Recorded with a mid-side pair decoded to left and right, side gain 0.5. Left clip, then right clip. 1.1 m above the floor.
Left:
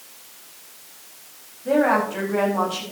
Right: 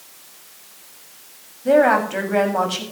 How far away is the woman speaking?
About 6.5 m.